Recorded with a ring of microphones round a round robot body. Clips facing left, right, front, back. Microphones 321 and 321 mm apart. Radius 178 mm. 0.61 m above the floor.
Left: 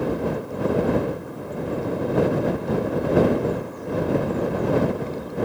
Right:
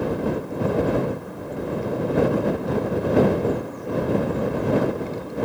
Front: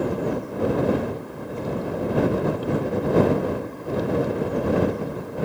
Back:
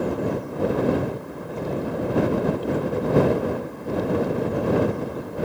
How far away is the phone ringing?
No phone ringing in this recording.